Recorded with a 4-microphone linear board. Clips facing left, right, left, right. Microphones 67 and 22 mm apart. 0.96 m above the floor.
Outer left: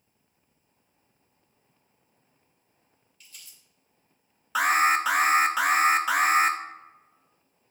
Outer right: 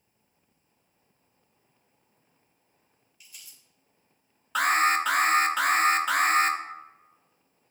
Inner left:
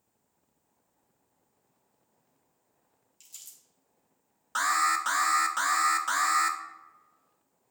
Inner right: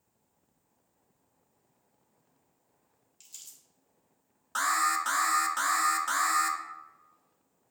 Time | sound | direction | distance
3.2 | crumpling | 10° right (ahead or behind) | 2.0 m
4.5 | an alarm | 5° left (ahead or behind) | 0.5 m